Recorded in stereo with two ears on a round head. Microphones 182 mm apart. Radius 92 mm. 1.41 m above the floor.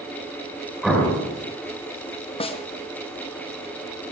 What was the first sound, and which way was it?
An explosion, centre (ahead or behind).